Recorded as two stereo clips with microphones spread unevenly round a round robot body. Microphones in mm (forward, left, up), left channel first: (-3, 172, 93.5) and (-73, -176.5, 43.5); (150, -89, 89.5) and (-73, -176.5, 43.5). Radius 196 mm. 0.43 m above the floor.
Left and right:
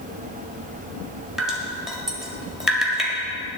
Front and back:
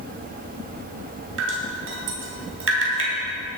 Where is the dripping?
175° left, 2 m.